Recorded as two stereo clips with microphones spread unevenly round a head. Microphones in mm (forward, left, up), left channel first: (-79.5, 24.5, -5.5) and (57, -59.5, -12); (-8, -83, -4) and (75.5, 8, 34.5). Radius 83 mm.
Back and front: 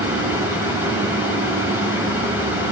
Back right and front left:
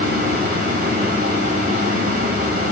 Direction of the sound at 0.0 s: 50° left.